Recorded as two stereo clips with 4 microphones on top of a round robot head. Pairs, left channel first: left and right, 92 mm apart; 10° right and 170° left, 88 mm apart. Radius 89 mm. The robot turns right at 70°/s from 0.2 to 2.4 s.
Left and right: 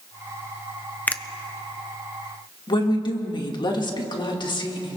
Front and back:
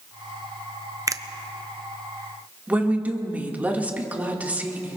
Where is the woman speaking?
105° left, 2 m.